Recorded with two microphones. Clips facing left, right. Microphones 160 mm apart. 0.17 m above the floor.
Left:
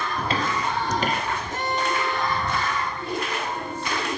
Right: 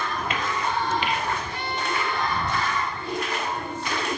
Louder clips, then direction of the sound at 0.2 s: Left 5 dB; 30° left (ahead or behind).